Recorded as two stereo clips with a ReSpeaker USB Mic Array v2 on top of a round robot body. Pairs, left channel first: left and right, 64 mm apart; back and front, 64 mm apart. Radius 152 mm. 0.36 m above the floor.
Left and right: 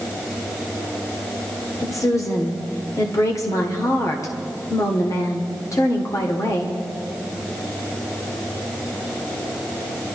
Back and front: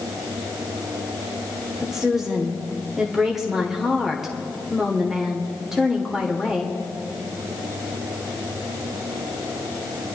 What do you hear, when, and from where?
1.8 s a woman speaking: 80° left, 1.6 m